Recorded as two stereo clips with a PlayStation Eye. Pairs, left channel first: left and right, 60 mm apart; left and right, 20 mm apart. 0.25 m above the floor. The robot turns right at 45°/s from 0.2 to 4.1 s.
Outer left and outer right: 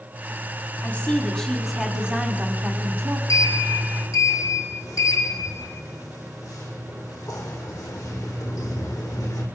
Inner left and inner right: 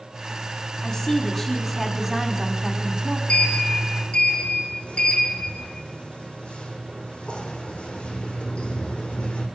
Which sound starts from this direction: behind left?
A woman speaking, at 0.8 s.